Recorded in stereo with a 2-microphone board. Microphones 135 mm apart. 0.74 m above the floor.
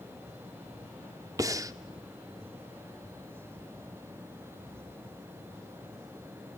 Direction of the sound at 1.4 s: 25° right (ahead or behind).